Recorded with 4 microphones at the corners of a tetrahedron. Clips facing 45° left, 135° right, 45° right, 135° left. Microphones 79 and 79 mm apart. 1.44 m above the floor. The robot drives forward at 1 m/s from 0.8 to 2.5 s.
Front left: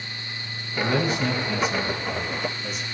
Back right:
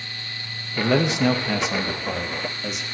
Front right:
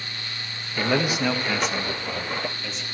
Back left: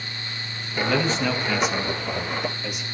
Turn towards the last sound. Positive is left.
turn(degrees=-150)